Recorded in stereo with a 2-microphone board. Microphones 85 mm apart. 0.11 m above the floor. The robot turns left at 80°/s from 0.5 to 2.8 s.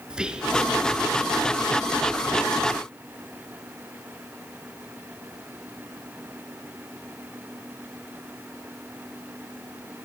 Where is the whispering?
10° right (ahead or behind), 1.5 m.